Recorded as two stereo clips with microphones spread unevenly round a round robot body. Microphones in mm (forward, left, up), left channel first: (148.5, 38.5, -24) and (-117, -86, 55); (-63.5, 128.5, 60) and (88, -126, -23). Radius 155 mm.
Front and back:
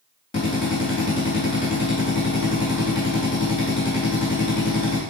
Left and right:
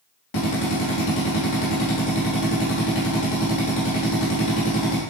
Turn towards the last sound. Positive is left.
turn(degrees=95)